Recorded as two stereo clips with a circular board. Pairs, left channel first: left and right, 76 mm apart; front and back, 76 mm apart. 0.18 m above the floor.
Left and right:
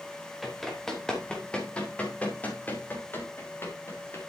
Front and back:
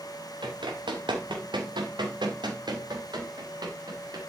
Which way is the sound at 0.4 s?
Straight behind.